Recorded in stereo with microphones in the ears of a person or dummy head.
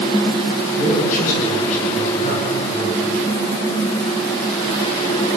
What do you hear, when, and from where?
0.7 s a man speaking: 45° left (ahead or behind), 9 m; by 3.0 s 35° left (ahead or behind), 8 m